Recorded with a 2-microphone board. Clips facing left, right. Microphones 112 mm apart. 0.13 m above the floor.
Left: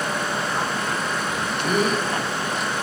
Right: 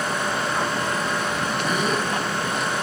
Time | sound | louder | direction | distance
1.6 | a gasp | left 4 dB | 55° left (ahead or behind) | 1.8 m